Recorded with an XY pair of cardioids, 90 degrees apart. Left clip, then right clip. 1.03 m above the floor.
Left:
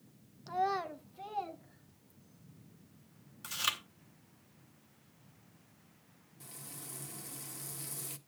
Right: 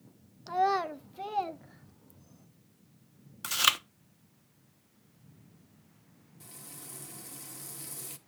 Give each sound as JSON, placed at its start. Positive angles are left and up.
{"t": 0.5, "sound": "a child speaking", "azimuth_deg": -40, "distance_m": 0.8}
{"t": 3.4, "sound": "chewing", "azimuth_deg": -65, "distance_m": 0.9}
{"t": 6.4, "sound": "frying", "azimuth_deg": 0, "distance_m": 1.3}